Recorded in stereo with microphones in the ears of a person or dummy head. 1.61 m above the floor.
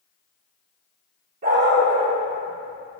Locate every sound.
1.4 s a dog barking: 45° right (ahead or behind), 1.6 m; by 3.0 s 30° right (ahead or behind), 1.2 m